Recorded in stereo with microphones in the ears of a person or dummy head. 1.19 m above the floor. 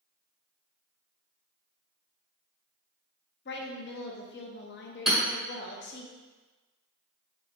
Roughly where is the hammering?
Centre.